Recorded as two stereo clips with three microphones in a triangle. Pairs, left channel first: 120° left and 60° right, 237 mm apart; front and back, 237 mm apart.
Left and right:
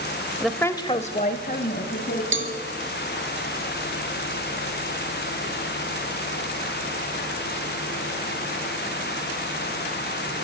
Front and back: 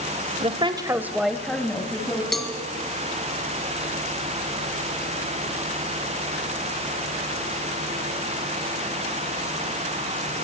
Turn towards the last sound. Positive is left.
turn(degrees=-90)